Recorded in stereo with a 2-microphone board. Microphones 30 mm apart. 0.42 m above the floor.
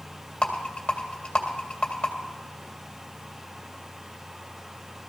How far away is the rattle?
About 2 m.